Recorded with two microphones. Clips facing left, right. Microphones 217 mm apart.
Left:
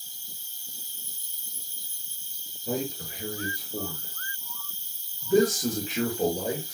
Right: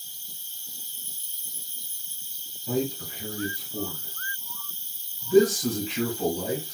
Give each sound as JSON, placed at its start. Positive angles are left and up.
{"t": 0.0, "sound": "an insect", "side_deg": -35, "distance_m": 1.0}
{"t": 2.7, "sound": "a man speaking", "side_deg": 45, "distance_m": 1.2}